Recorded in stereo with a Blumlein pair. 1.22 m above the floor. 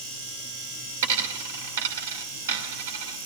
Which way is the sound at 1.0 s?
60° right.